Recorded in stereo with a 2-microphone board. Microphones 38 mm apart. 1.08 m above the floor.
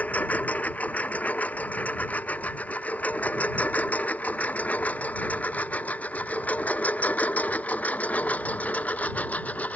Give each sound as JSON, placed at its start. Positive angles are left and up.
{"t": 0.0, "sound": "a lawn mower", "side_deg": 40}